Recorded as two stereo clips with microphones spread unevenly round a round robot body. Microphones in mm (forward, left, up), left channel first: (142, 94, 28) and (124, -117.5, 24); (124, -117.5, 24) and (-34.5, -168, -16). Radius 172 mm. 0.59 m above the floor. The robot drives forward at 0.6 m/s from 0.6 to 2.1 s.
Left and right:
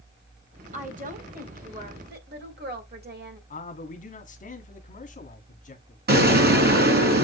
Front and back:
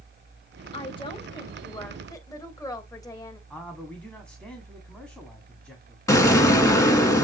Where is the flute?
I don't hear a flute.